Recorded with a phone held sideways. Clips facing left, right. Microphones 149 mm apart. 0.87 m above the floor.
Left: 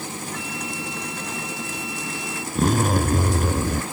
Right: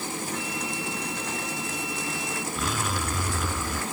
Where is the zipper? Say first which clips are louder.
Left 13 dB; 50° left (ahead or behind).